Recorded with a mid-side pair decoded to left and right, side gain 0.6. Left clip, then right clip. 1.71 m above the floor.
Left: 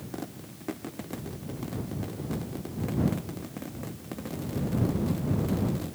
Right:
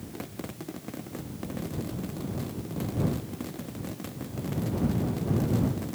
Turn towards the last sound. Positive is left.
No sound to turn to.